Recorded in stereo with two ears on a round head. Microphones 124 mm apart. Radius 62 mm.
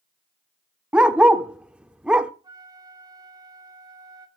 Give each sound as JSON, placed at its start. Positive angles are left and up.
{"t": 0.9, "sound": "a dog barking", "side_deg": -5, "distance_m": 1.0}
{"t": 2.4, "sound": "a flute", "side_deg": -30, "distance_m": 3.0}